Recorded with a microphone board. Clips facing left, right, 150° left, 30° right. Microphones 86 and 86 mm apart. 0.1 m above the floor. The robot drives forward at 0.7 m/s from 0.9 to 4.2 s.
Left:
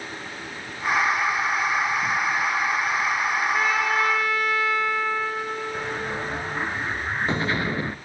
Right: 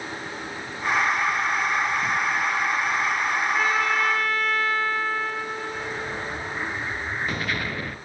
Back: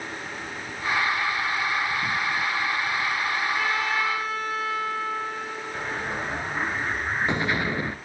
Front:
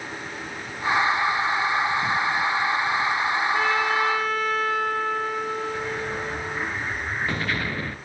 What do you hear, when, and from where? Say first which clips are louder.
3.5 s a trumpet: even, front 3 dB; 5° left, 10 m
5.7 s an explosion: left 2 dB, front 1 dB; 105° left, 1.8 m